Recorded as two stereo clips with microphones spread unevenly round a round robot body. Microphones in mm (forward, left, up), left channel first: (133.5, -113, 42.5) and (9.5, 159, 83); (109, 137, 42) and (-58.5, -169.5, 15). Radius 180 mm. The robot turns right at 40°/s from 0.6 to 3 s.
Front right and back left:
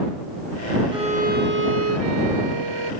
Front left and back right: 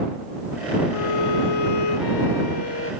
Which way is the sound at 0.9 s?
40° left.